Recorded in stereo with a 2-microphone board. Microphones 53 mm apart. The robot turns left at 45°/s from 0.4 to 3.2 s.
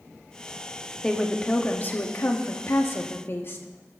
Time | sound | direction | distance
1.0 | a woman speaking | 165° left | 1.4 m